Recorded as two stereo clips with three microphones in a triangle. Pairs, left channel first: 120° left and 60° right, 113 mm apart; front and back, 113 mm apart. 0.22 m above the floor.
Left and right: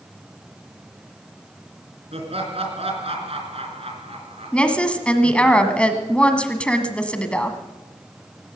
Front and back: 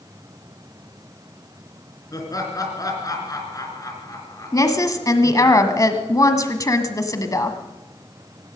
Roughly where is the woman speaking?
Ahead left.